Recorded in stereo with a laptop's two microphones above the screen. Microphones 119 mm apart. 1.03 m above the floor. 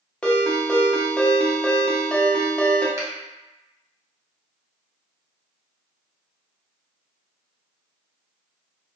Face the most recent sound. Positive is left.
turn(degrees=-25)  # may be behind; listen again after turning